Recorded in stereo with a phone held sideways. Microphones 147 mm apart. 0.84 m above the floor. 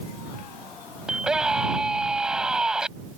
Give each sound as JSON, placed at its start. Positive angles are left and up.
{"t": 1.1, "sound": "a scream", "side_deg": -5}